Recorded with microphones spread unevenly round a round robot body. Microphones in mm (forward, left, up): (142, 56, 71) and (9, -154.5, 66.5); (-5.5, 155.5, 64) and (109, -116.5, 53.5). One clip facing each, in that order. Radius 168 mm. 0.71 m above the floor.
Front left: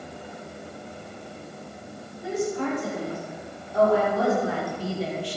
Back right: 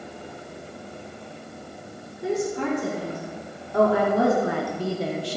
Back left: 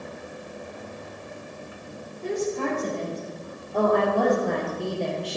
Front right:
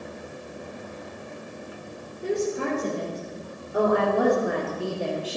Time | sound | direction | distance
2.2 | a woman speaking | 145° right | 3.5 m